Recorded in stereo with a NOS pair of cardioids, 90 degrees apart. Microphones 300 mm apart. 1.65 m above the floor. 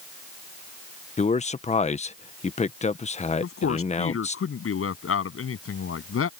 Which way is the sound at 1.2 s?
20° left.